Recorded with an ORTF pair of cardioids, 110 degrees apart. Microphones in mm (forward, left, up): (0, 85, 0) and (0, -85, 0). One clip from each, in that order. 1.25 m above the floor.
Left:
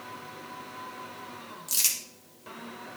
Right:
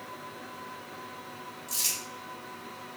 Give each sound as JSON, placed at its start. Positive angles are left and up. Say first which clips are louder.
{"t": 1.7, "sound": "crumpling", "louder": "left 3 dB", "azimuth_deg": 55, "distance_m": 2.0}